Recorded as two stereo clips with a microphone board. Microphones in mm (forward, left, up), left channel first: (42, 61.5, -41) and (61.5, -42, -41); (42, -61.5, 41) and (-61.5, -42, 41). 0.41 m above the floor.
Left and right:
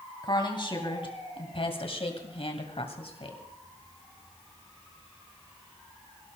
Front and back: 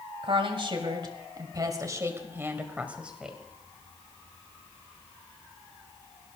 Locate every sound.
0.2 s a woman speaking: 140° left, 2.5 m; by 3.4 s 85° left, 2 m